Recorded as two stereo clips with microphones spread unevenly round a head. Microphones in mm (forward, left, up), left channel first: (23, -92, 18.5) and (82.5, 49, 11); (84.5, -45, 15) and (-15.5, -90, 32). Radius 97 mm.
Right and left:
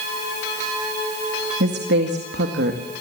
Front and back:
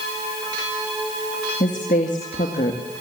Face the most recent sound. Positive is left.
turn(degrees=70)